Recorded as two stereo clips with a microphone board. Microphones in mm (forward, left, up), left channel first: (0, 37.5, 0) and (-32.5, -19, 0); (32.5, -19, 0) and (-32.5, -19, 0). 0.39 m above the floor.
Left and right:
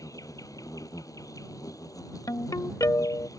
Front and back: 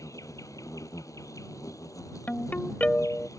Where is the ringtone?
60° left.